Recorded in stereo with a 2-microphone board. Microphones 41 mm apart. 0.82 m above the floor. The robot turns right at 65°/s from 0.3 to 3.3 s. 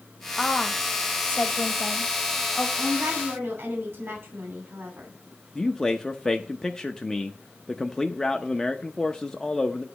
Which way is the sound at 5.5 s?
15° left (ahead or behind).